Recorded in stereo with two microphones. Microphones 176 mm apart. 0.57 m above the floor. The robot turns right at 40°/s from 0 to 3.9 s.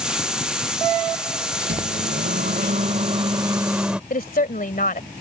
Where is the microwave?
100° right; by 4.0 s 10° right.